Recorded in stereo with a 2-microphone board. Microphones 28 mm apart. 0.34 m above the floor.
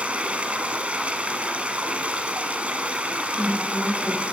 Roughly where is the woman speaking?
Left.